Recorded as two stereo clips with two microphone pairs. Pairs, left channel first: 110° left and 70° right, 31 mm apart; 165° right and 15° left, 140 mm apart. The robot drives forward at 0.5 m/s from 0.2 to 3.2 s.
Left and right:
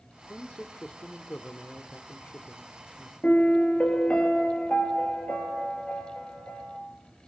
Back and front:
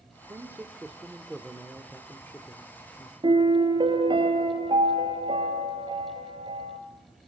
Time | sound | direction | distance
0.3 | a man speaking | 80° left | 1.5 m
3.2 | a piano | 65° left | 3 m